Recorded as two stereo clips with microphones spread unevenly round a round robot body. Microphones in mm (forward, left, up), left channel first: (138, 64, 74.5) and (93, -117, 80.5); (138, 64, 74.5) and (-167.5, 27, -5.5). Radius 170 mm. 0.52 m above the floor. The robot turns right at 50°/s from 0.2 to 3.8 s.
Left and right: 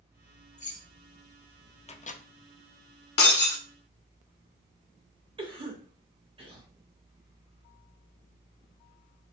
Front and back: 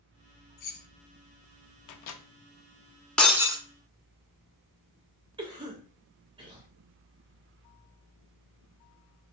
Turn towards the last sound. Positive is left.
turn(degrees=-145)